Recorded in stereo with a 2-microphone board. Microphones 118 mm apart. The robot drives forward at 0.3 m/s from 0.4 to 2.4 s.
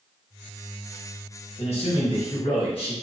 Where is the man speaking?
60° left (ahead or behind), 1.4 m; by 2.9 s 50° left (ahead or behind), 1.5 m.